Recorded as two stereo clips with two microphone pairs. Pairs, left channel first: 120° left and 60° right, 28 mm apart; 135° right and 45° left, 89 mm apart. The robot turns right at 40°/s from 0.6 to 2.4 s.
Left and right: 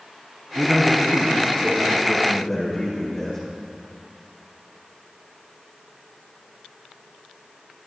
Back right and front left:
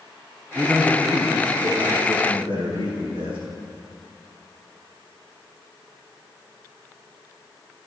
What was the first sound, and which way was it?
A man speaking, 30° right.